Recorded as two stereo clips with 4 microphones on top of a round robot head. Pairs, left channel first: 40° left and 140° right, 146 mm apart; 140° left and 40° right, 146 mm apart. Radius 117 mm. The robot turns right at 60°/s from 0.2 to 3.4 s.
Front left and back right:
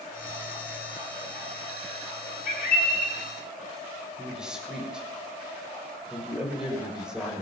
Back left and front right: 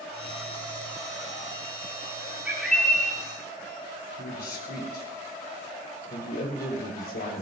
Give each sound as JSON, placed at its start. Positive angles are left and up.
{"t": 2.5, "sound": "a bird", "azimuth_deg": 35, "distance_m": 5.5}
{"t": 4.2, "sound": "a man speaking", "azimuth_deg": 135, "distance_m": 5.5}